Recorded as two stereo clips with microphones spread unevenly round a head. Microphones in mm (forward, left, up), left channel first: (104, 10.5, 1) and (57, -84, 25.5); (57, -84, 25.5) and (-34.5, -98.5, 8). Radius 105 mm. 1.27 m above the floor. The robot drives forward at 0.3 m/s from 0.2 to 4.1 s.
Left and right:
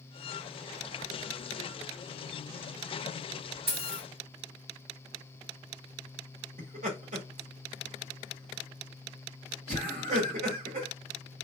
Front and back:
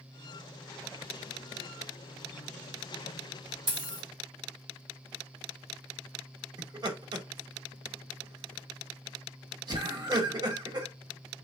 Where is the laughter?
130° right, 1.3 m.